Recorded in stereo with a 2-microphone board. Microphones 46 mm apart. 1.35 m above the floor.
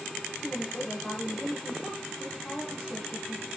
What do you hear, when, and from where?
0.4 s a woman speaking: 30° left (ahead or behind), 1.6 m